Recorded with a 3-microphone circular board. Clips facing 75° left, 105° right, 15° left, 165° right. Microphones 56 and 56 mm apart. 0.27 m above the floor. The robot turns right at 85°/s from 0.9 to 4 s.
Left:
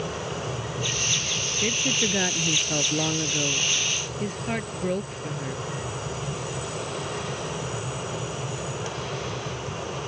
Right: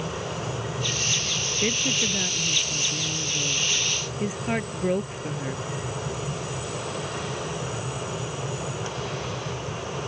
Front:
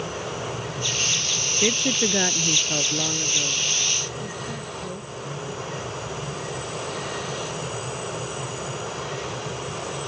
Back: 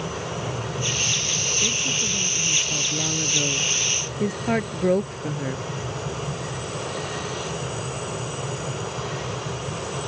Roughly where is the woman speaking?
Ahead right.